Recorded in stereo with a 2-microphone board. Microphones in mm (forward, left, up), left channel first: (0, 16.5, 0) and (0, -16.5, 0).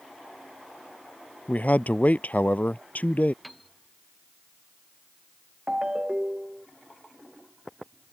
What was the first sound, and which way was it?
A man speaking, 50° left (ahead or behind).